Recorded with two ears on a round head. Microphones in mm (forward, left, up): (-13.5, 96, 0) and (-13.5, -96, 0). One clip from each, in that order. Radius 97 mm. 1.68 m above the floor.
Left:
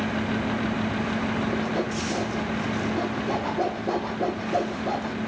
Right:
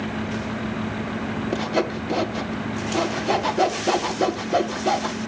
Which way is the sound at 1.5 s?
75° right (ahead or behind).